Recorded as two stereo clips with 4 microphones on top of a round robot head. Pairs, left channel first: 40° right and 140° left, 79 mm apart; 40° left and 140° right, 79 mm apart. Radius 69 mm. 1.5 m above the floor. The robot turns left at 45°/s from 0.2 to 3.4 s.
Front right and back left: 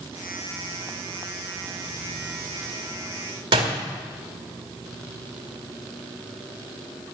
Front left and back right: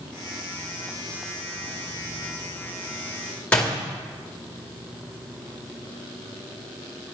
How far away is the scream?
I don't hear a scream.